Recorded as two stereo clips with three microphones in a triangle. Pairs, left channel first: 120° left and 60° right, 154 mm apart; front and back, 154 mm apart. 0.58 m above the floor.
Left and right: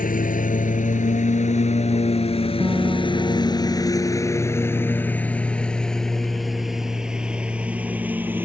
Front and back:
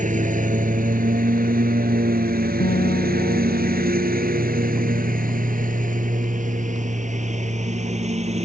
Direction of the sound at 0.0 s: 145° left.